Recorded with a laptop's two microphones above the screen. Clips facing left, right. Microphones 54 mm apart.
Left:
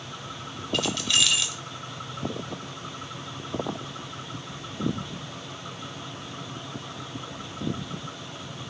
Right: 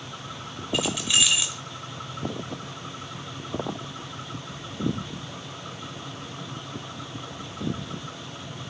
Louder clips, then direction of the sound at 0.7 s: Right 1 dB; 10° right (ahead or behind).